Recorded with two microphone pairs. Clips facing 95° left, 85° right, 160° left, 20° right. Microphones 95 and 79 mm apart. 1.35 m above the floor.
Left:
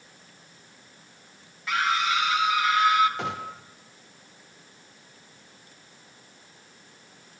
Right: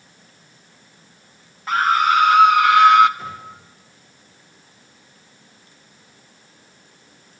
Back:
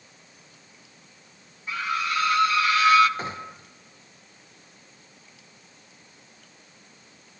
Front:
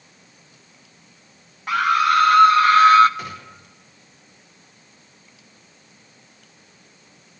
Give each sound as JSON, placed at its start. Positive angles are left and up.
{"t": 1.7, "sound": "a scream", "azimuth_deg": -35, "distance_m": 1.3}
{"t": 3.2, "sound": "a gunshot", "azimuth_deg": 100, "distance_m": 1.3}